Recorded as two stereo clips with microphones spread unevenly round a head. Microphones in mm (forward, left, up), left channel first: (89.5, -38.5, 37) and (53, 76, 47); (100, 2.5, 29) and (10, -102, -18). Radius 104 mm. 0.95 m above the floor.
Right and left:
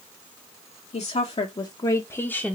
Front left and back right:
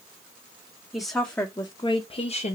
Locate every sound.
0.9 s a woman speaking: 50° right, 1.0 m; by 2.5 s 10° left, 0.9 m